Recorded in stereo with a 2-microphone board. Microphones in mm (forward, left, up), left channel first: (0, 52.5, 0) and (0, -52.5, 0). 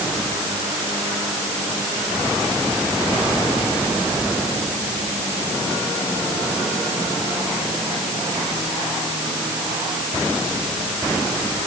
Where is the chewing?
I don't hear chewing.